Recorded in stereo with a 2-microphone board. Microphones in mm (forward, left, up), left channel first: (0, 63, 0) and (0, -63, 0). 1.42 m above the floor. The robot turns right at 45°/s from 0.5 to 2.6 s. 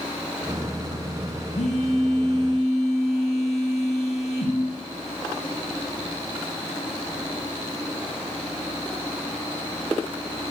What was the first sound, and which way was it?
A phone buzzing, 70° left.